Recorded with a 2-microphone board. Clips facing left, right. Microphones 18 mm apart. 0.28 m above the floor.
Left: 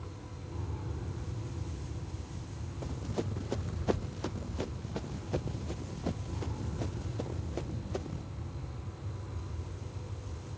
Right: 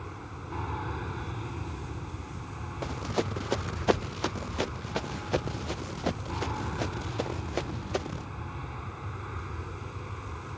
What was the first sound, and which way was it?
An aircraft, 60° right (ahead or behind).